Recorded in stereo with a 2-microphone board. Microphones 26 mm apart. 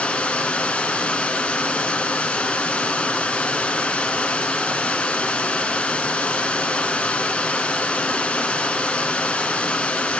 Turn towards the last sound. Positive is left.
turn(degrees=75)  # may be behind; listen again after turning